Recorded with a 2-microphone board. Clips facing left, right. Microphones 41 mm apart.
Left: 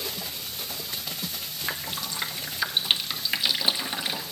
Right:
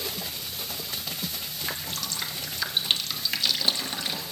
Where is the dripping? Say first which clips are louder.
Left 2 dB; 15° left (ahead or behind), 0.8 m.